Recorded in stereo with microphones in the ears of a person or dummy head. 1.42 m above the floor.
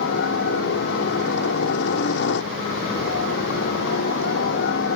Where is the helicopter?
65° left (ahead or behind).